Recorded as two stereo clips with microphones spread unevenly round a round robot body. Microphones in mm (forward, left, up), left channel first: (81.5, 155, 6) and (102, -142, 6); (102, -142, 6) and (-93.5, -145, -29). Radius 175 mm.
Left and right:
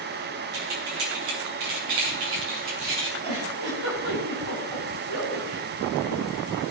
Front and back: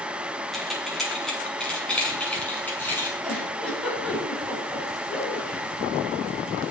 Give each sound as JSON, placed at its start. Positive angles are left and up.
{"t": 0.5, "sound": "keys jangling", "azimuth_deg": -90, "distance_m": 6.0}
{"t": 3.2, "sound": "a giggle", "azimuth_deg": -85, "distance_m": 9.0}